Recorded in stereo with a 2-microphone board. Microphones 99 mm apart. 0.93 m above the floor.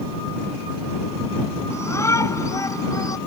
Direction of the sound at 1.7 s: 25° left (ahead or behind).